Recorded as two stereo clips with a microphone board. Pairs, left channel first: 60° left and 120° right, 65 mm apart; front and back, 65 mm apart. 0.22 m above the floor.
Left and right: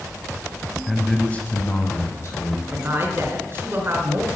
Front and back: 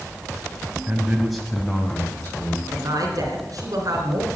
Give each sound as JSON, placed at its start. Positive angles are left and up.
{"t": 0.9, "sound": "a man speaking", "azimuth_deg": 150, "distance_m": 1.4}
{"t": 2.7, "sound": "a woman speaking", "azimuth_deg": -170, "distance_m": 3.0}